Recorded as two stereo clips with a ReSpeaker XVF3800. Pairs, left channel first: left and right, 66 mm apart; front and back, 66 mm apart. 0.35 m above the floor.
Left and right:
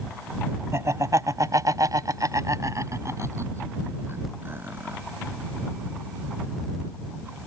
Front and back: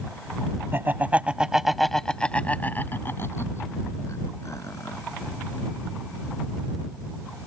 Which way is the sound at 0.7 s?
130° right.